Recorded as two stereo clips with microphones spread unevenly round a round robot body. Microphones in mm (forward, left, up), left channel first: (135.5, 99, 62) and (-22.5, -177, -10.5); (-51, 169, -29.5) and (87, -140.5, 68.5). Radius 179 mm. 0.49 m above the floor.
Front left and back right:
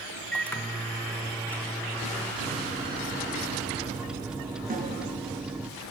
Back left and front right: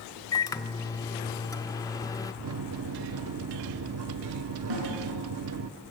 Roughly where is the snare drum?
Ahead right.